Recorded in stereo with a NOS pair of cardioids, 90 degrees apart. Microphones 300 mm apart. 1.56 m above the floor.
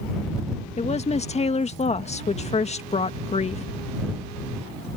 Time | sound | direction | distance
0.8 | a woman speaking | 20° left | ?